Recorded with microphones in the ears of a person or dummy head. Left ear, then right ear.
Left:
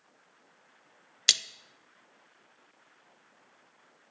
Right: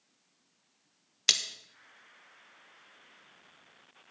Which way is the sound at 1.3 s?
15° left (ahead or behind).